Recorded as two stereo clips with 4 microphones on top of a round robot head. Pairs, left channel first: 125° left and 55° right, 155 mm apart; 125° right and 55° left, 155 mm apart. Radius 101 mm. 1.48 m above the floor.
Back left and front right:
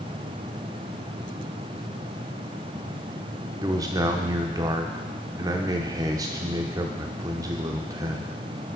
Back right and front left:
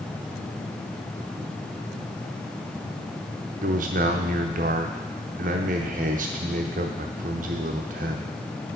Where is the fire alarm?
No fire alarm in this recording.